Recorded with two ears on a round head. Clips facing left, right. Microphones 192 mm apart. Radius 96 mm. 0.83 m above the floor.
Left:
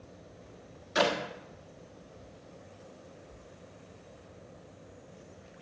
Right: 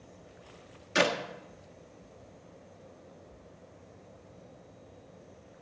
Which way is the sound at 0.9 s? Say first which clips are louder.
Even; 30° right (ahead or behind).